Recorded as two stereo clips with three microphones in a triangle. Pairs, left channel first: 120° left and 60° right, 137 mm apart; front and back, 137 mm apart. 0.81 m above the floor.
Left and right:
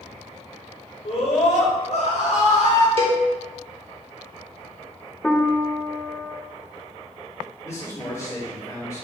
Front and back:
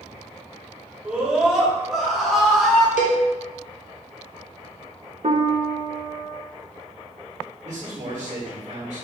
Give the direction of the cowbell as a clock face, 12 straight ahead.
1 o'clock.